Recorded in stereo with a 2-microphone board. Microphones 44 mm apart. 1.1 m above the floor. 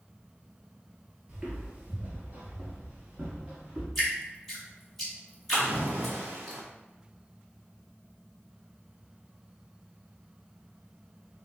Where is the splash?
65° right (ahead or behind), 1.1 m.